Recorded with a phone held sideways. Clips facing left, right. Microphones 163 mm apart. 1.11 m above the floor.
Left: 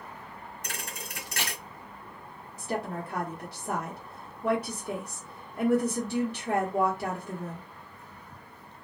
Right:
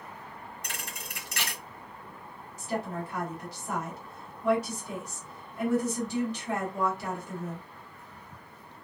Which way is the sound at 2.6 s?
55° left (ahead or behind).